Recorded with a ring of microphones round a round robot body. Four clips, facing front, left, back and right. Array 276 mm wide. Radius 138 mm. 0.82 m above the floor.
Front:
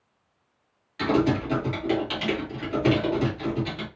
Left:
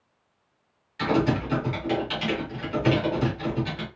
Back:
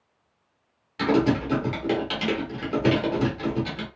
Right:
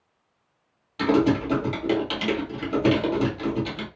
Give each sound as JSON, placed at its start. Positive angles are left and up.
{"t": 1.0, "sound": "typing on a keyboard", "azimuth_deg": -130, "distance_m": 1.7}